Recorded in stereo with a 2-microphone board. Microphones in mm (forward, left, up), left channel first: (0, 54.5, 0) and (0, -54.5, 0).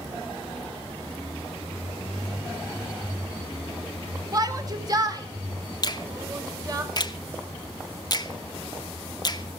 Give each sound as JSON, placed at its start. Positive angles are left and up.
{"t": 4.3, "sound": "a shout", "side_deg": -35, "distance_m": 2.5}
{"t": 5.8, "sound": "a finger snap", "side_deg": 40, "distance_m": 0.9}